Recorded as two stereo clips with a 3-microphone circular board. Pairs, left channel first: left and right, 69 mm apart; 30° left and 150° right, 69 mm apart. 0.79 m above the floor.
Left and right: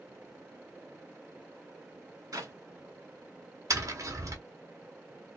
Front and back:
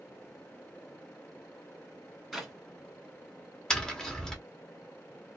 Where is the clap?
60° right, 2 m.